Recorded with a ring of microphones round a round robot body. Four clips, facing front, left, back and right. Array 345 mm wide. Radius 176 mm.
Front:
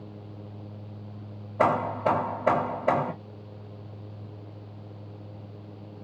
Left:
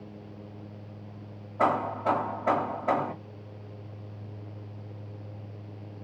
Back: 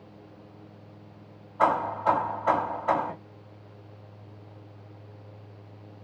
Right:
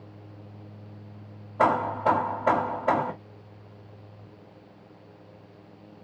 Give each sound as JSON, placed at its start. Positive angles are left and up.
{"t": 1.6, "sound": "hammering", "azimuth_deg": -35, "distance_m": 1.5}